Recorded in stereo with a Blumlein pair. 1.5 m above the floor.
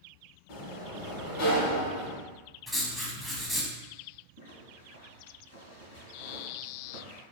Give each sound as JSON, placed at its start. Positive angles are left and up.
{"t": 0.5, "sound": "a sliding door", "azimuth_deg": 50, "distance_m": 1.1}
{"t": 2.7, "sound": "writing", "azimuth_deg": 5, "distance_m": 0.8}
{"t": 4.4, "sound": "a zipper", "azimuth_deg": 70, "distance_m": 1.1}